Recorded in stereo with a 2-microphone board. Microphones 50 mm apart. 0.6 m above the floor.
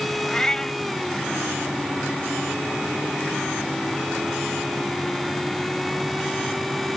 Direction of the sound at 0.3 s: 15° left (ahead or behind).